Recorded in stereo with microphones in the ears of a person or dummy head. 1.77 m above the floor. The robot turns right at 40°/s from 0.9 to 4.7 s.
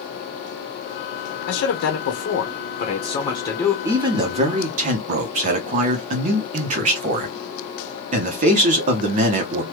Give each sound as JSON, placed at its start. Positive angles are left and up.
{"t": 1.5, "sound": "a man speaking", "azimuth_deg": 70, "distance_m": 1.0}
{"t": 3.9, "sound": "a man speaking", "azimuth_deg": -160, "distance_m": 0.8}